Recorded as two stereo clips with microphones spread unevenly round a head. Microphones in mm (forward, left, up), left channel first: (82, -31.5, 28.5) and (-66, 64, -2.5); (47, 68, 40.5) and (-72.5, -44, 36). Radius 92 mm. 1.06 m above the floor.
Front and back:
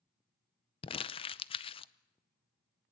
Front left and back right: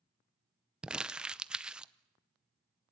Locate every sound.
0.8 s crumpling: 65° right, 0.6 m